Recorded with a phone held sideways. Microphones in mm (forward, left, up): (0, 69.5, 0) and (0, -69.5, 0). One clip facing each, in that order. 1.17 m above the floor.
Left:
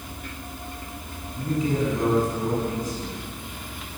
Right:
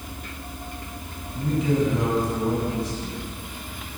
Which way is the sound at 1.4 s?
80° right.